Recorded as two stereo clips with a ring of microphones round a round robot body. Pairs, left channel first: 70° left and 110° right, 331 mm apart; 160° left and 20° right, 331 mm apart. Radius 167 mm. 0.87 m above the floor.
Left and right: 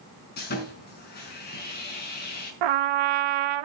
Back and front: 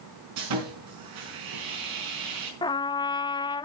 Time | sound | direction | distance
0.4 | sawing | 5° left | 4.5 m
2.6 | a trumpet | 125° right | 0.6 m